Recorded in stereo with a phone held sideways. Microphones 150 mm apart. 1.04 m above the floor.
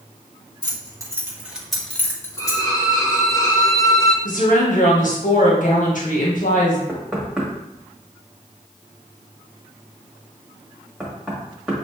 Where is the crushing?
I don't hear crushing.